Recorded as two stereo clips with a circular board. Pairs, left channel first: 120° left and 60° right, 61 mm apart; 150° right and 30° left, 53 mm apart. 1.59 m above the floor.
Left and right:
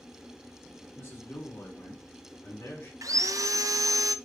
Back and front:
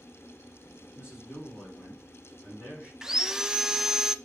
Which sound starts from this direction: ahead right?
Sawing, at 3.0 s.